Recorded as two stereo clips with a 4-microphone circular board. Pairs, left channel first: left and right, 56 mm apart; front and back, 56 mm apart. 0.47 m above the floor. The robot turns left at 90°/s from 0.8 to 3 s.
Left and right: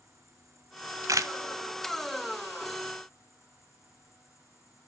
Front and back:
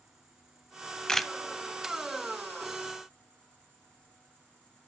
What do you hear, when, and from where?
0.0 s an insect: 100° right, 7.5 m; by 4.9 s 60° left, 7.5 m
1.1 s a camera shutter: 75° right, 0.8 m; by 1.3 s 95° right, 0.8 m